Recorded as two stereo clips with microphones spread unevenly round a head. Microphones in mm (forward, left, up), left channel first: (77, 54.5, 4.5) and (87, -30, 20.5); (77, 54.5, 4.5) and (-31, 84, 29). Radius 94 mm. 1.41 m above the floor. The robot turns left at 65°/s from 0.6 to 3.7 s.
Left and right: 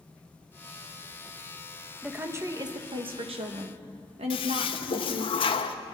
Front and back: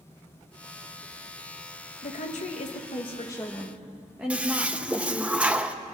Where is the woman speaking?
5° right, 2.0 m; by 5.3 s 110° right, 2.0 m.